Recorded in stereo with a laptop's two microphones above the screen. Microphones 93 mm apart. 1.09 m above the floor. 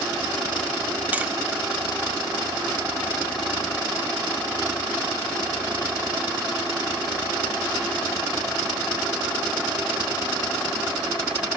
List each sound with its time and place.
1.1 s tapping: 20° right (ahead or behind), 0.6 m